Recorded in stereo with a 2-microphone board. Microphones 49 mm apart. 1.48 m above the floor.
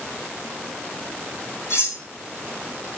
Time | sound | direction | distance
1.7 | cutlery clinking | 75° left (ahead or behind) | 3.5 m